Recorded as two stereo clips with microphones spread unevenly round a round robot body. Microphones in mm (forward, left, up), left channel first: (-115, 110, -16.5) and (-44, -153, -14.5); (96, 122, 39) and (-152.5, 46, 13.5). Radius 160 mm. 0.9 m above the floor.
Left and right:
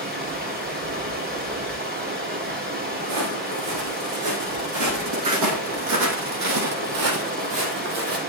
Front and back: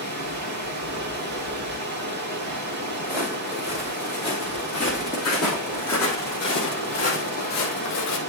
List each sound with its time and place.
0.0 s running water: 130° right, 3 m
3.0 s footsteps: 85° right, 3.5 m; by 8.2 s 20° right, 1.6 m